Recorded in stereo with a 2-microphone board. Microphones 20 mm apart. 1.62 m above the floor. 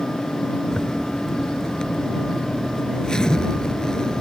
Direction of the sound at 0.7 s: 40° left (ahead or behind).